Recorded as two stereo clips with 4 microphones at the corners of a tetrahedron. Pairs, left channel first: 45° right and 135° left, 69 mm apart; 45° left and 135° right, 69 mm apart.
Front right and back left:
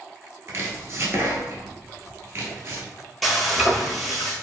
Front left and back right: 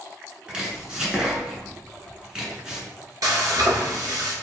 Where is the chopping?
155° left, 0.9 m.